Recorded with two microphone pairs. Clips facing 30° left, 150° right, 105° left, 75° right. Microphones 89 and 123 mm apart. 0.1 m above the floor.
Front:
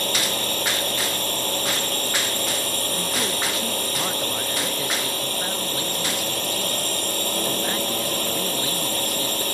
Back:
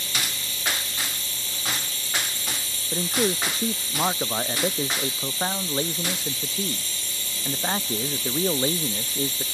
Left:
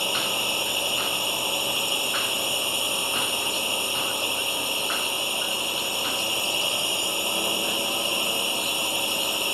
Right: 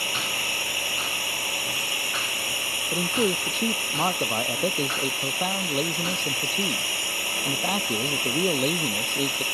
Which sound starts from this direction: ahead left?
A drone, at 0.0 s.